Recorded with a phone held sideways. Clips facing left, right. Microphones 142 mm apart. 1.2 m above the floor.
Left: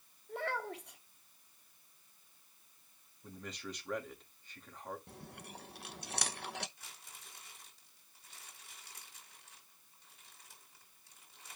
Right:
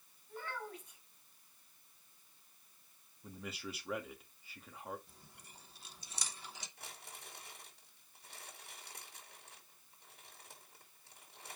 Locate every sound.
0.3 s a child speaking: 75° left (ahead or behind), 1.6 m
3.2 s a man speaking: 5° right (ahead or behind), 2.5 m
5.1 s chewing: 70° left (ahead or behind), 0.8 m
6.8 s crumpling: 60° right (ahead or behind), 5 m